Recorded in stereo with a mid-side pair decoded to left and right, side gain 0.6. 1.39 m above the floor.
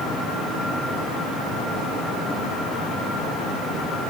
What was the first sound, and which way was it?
Only background noise.